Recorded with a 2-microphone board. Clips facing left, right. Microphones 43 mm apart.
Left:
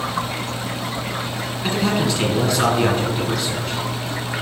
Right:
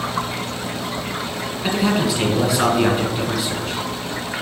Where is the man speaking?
5° right (ahead or behind), 1.5 m.